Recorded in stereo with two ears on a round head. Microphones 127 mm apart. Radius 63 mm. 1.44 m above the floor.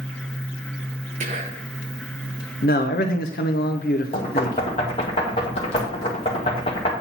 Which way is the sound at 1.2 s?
50° right (ahead or behind).